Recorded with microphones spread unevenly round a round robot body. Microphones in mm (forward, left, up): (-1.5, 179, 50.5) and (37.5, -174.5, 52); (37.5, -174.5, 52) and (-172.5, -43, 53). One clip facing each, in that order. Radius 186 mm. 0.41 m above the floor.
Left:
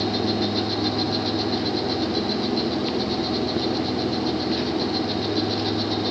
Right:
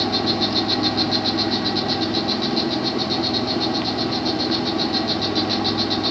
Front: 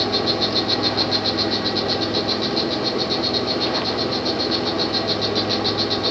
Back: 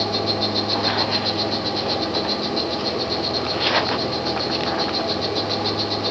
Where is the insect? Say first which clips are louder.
Right 1 dB, front 2 dB; 75° right, 2 m.